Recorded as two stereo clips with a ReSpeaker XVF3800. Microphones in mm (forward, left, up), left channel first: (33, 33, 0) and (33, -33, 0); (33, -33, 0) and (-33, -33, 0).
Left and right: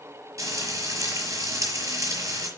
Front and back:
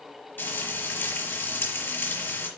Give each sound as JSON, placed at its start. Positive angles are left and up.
{"t": 0.4, "sound": "frying", "azimuth_deg": -55, "distance_m": 5.5}